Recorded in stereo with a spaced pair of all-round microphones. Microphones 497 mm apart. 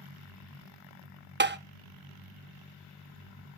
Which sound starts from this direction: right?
Tapping, at 1.4 s.